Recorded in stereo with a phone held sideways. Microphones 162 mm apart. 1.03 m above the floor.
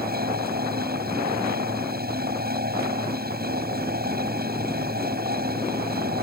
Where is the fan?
75° right (ahead or behind).